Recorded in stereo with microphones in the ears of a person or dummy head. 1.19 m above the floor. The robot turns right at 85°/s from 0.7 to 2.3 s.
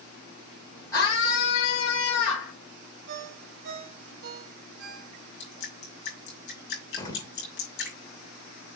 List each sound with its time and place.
0.9 s a scream: 20° left, 4.5 m; by 2.5 s 135° left, 4.5 m
3.1 s a ringtone: 60° right (ahead or behind), 2.5 m
5.4 s dripping: 60° left (ahead or behind), 5.5 m
7.0 s an explosion: 20° left (ahead or behind), 1.7 m